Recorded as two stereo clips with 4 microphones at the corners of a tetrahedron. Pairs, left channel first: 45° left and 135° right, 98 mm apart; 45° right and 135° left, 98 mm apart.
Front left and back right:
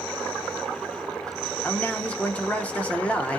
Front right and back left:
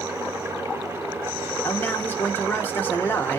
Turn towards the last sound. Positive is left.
turn(degrees=-10)